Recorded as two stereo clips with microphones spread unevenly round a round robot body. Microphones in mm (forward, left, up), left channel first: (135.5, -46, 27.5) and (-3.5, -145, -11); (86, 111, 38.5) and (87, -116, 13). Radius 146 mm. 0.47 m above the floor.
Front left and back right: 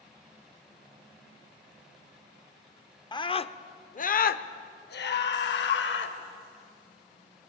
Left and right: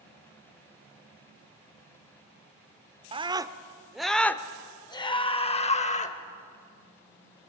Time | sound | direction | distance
3.1 | a scream | 35° right | 1.1 m